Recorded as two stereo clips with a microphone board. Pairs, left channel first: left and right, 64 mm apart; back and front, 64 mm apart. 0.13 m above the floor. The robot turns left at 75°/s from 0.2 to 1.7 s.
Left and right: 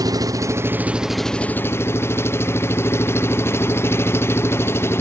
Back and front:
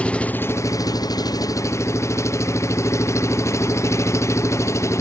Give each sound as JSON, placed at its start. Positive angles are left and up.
{"t": 0.0, "sound": "an engine running", "azimuth_deg": -110}